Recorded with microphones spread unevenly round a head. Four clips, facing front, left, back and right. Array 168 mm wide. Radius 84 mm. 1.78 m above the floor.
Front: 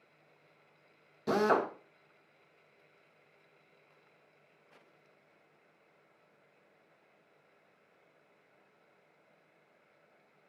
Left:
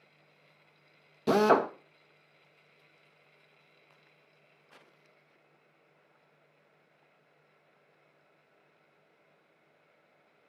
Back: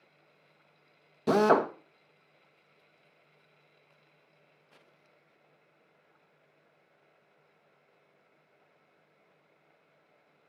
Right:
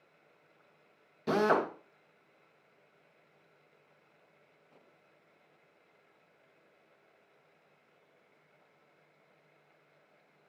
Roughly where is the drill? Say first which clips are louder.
Left 4 dB, back 5 dB; behind left.